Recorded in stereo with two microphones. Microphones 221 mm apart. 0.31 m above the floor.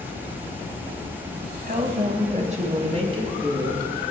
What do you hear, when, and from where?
1.7 s a woman speaking: 50° right (ahead or behind), 2 m; by 3.9 s 20° right (ahead or behind), 3 m